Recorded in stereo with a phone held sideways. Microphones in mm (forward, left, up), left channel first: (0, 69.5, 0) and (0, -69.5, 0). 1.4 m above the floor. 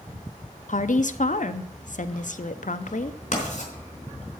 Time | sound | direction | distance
0.7 | a woman speaking | 65° left (ahead or behind) | 0.6 m
3.3 | writing | 55° left (ahead or behind) | 4 m